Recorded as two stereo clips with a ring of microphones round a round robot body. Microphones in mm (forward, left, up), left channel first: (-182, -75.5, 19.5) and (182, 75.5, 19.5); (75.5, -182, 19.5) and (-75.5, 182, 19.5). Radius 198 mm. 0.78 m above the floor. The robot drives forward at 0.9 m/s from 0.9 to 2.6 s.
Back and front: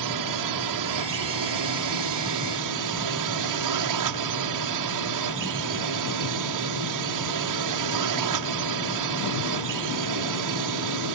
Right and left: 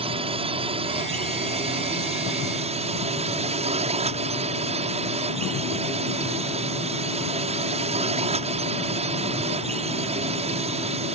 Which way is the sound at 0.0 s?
40° left.